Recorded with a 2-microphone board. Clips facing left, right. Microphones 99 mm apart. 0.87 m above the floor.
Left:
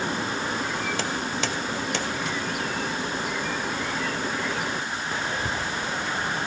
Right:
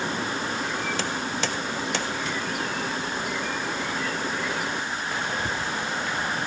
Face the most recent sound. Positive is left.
No sound to turn to.